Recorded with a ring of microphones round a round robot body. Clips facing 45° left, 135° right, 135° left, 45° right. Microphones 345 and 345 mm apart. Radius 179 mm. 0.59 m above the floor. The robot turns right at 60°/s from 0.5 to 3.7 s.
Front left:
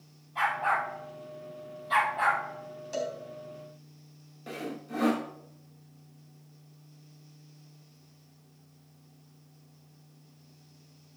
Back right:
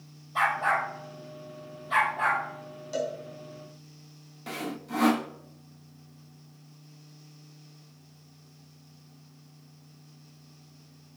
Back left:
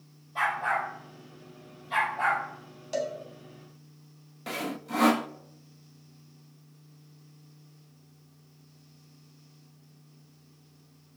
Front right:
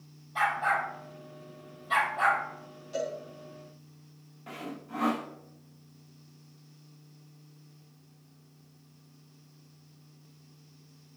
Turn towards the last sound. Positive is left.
turn(degrees=155)